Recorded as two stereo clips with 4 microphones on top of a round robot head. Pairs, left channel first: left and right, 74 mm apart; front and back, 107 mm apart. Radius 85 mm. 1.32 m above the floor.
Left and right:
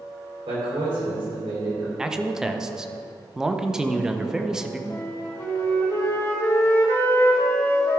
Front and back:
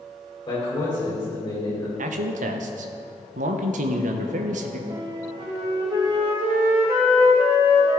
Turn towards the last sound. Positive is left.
turn(degrees=145)